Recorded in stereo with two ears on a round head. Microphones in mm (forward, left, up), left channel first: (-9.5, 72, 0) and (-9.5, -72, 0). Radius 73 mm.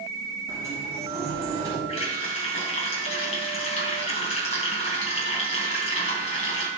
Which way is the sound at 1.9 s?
40° left (ahead or behind).